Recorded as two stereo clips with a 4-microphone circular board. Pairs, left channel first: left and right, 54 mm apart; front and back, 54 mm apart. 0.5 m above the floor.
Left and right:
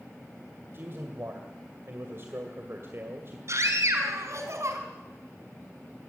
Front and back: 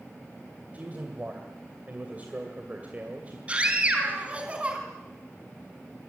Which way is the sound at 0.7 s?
125° right.